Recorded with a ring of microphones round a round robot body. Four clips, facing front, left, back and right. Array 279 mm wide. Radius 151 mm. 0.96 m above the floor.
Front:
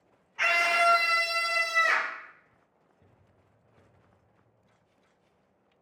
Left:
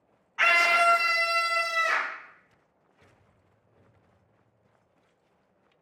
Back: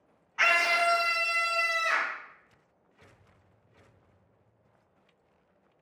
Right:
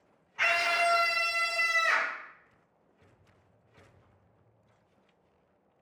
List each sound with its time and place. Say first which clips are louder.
0.4 s a scream: left 5 dB, front 1 dB; 130° left, 0.6 m; by 2.2 s 35° left, 1.9 m